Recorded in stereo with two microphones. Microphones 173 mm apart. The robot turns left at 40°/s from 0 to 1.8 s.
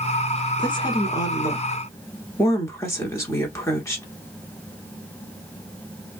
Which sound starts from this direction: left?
A woman speaking, at 0.6 s.